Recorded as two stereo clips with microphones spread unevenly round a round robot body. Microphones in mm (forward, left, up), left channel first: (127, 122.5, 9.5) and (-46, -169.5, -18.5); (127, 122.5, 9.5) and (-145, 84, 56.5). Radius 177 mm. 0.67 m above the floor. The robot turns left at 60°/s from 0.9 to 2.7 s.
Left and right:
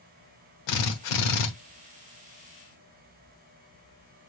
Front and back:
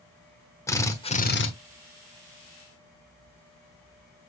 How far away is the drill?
About 1.3 m.